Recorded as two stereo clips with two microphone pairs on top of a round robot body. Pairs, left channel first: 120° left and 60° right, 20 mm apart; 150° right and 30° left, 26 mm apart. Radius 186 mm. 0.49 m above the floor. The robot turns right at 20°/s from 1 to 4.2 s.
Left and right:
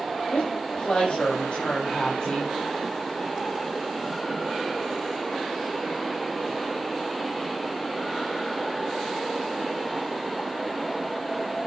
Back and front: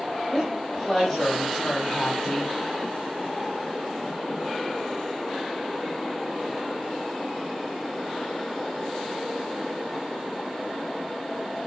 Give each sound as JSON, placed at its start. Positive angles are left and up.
{"t": 0.3, "sound": "a woman speaking", "azimuth_deg": 125, "distance_m": 5.0}